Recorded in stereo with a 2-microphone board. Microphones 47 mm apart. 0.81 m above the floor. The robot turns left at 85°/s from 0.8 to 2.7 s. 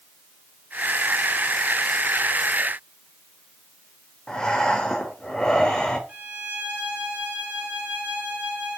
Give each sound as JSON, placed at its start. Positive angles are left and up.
{"t": 4.3, "sound": "breathing", "side_deg": 15, "distance_m": 3.0}
{"t": 6.1, "sound": "a violin", "side_deg": -30, "distance_m": 4.5}